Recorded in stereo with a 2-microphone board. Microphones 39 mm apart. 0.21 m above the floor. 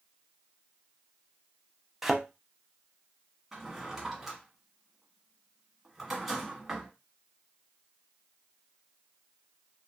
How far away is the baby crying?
No baby crying in this recording.